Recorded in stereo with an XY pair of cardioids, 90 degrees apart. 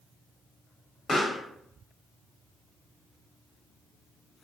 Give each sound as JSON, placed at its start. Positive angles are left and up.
{"t": 1.1, "sound": "a pop", "azimuth_deg": 40, "distance_m": 1.0}